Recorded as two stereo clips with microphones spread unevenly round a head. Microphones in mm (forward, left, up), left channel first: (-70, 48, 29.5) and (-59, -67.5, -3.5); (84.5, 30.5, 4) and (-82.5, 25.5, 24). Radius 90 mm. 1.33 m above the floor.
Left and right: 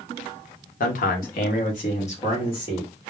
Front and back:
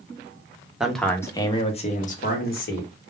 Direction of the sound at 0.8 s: 95° left.